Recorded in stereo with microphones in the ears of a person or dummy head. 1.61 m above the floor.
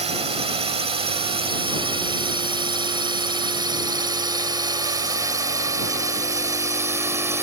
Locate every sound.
0.0 s a drone: 30° right (ahead or behind); by 7.4 s 10° right (ahead or behind)